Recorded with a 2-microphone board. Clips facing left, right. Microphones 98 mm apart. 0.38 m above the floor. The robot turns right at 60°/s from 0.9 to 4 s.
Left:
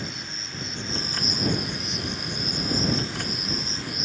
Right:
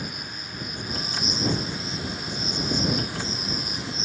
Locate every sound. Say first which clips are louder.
0.0 s an insect: right 1 dB; 25° left; by 4.0 s 150° right